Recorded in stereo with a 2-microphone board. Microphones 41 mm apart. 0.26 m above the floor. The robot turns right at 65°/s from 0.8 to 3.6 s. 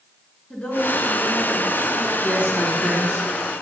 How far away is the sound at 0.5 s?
About 4 m.